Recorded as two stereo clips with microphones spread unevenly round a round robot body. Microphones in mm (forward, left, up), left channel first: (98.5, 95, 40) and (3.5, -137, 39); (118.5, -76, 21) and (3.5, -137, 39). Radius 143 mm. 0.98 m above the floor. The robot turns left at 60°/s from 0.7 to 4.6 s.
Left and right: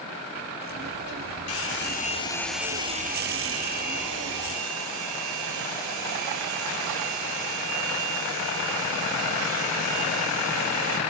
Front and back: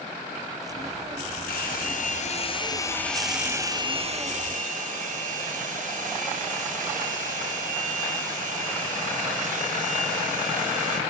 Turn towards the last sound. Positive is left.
turn(degrees=-145)